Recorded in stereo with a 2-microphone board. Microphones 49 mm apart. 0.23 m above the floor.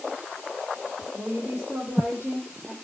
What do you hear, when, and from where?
1.1 s a woman speaking: 35° right (ahead or behind), 6.5 m